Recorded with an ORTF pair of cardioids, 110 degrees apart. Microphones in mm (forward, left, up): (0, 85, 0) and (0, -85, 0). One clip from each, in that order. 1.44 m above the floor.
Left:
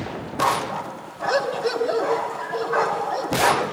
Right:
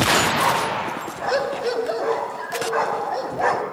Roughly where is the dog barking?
Ahead.